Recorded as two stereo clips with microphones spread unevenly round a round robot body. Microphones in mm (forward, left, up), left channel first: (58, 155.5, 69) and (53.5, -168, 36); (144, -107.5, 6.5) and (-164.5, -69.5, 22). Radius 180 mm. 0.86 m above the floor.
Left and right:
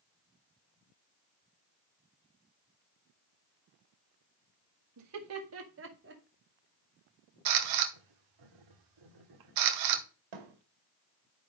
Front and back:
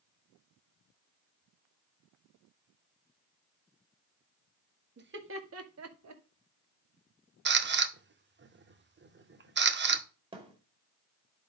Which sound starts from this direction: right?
A thud, at 10.3 s.